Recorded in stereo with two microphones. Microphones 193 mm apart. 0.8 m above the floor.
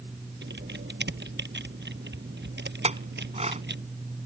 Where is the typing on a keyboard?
65° right (ahead or behind).